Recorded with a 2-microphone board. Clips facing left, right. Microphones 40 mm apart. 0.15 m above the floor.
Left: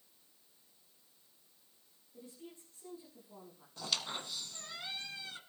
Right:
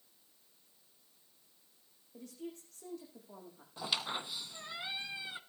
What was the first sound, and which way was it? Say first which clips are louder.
A woman speaking: right 6 dB; 80° right.